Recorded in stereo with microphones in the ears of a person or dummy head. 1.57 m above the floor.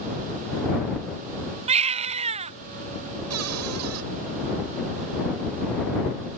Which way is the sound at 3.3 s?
85° right.